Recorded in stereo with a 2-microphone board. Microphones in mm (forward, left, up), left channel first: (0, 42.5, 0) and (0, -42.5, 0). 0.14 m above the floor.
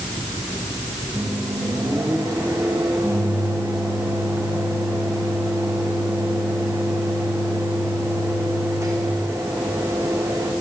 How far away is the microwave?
About 6 m.